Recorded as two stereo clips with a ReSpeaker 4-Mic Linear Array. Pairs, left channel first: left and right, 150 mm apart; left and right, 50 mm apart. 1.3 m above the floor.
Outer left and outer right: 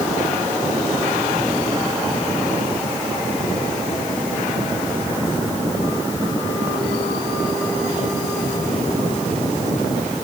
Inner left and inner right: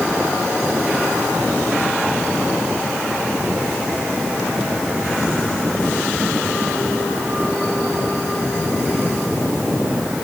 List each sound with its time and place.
Only background noise.